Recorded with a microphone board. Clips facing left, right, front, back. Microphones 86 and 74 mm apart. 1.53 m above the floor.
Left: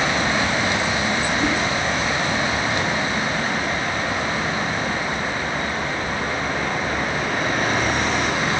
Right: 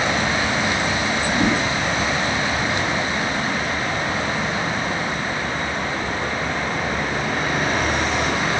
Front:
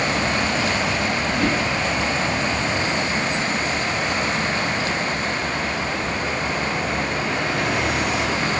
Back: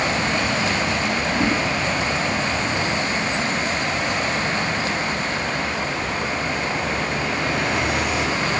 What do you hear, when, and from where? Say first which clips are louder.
1.3 s a whoosh: right 1 dB, back 1 dB; 120° right, 7 m